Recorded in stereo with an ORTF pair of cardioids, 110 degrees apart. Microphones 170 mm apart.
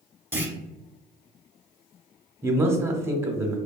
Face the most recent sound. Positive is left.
turn(degrees=-15)